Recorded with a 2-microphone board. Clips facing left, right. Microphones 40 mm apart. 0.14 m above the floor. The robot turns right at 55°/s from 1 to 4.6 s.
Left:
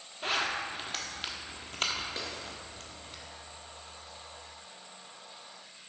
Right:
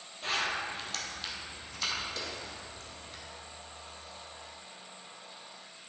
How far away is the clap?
About 1.7 m.